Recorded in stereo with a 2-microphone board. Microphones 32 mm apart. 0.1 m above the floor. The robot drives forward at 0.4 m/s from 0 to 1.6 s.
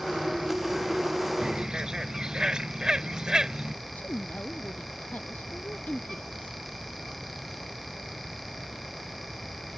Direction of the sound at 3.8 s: 55° left (ahead or behind).